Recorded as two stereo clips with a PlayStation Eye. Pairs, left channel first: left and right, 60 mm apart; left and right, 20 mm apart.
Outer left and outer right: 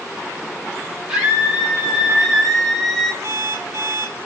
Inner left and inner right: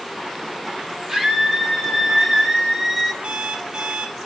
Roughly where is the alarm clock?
Right.